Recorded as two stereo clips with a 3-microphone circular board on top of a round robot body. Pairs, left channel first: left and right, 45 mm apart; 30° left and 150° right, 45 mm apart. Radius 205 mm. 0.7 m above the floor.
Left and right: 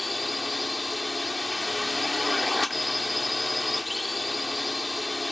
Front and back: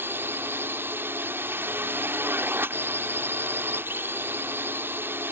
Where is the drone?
Straight behind.